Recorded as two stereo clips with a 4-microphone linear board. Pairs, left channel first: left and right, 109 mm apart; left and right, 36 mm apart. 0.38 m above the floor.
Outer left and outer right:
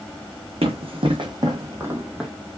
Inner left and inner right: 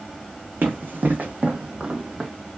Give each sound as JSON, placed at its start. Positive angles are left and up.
{"t": 0.6, "sound": "running footsteps", "side_deg": -60, "distance_m": 1.2}